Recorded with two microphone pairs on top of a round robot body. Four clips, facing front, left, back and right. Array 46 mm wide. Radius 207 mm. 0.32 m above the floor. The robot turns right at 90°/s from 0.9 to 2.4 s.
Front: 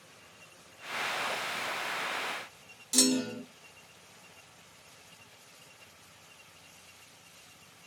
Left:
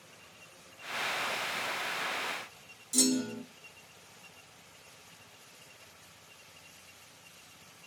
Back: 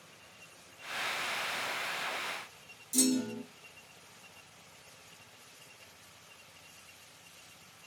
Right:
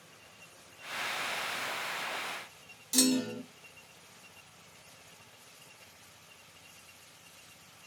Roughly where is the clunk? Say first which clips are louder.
Right 1 dB, front 2 dB; ahead right.